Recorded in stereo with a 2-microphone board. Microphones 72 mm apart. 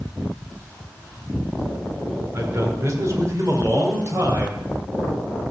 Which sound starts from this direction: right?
A man speaking, at 2.3 s.